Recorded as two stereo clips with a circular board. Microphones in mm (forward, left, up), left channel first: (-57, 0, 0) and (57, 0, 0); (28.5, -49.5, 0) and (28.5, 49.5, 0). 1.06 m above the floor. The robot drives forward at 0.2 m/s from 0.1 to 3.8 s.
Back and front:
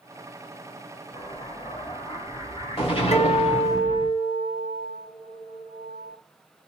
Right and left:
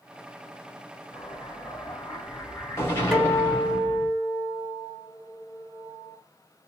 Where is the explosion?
145° right, 1.5 m; by 4.1 s 155° right, 1.9 m.